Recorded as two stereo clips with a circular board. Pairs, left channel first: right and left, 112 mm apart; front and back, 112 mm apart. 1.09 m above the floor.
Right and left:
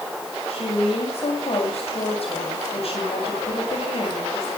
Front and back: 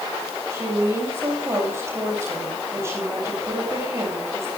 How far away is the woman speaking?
About 7 m.